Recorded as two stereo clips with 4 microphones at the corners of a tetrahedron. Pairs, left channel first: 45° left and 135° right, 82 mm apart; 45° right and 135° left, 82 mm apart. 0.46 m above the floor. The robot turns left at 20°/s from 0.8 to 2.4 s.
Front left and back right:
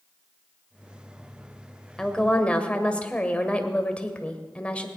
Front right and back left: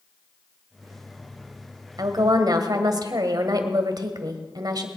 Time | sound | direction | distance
2.0 | a woman speaking | 125° left | 1.7 m